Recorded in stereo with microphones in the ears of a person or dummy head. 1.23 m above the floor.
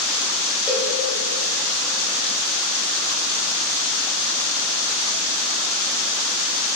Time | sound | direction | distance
0.7 | a cowbell | 5° right (ahead or behind) | 10 m